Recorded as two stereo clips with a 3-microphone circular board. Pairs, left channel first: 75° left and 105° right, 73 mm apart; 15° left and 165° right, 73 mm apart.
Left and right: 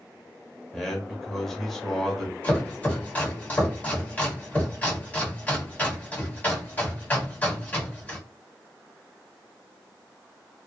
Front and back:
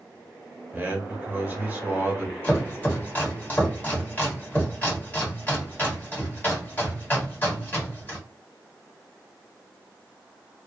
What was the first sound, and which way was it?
A man speaking, 160° left.